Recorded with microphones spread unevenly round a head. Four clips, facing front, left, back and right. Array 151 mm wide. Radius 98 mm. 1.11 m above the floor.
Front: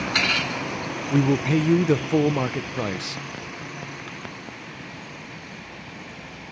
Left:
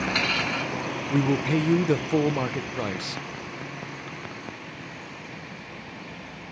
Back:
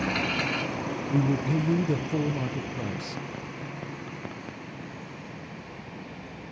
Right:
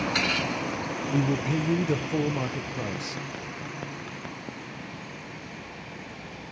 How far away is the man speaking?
About 0.5 m.